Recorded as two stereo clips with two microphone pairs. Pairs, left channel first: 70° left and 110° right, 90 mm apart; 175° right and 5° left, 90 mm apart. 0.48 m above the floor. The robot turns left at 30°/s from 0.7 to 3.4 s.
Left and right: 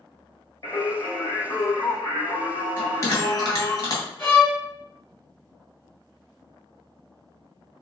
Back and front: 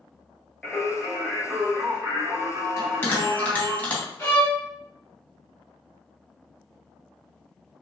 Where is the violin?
130° left, 2.0 m.